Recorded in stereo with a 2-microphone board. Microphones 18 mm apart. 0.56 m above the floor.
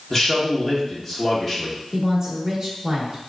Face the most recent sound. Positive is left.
turn(degrees=-25)  # may be behind; listen again after turning